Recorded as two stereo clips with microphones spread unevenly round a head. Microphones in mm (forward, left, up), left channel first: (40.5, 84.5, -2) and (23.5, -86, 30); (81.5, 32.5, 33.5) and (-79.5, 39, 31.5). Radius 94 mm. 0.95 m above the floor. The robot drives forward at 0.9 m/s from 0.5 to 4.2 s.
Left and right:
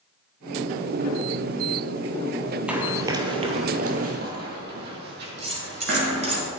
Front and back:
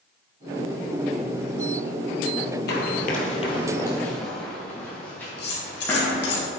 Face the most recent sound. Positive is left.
turn(degrees=-40)